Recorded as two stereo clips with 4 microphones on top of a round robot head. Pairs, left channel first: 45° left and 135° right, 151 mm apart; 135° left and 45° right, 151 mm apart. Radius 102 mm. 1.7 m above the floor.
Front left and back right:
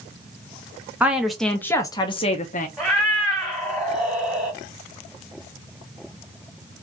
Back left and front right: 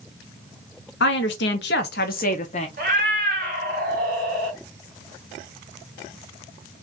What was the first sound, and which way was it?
A woman speaking, 145° left.